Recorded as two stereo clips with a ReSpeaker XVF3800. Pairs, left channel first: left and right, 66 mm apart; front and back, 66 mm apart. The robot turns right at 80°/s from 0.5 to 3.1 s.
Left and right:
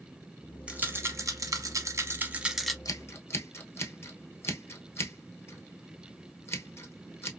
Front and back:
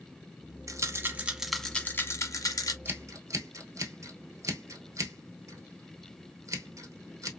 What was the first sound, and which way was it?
A rattle, 160° right.